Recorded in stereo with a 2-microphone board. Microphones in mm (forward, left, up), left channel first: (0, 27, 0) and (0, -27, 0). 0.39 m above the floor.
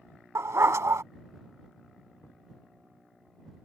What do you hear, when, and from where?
0.3 s a dog barking: 70° right (ahead or behind)
2.2 s knocking: 70° left (ahead or behind)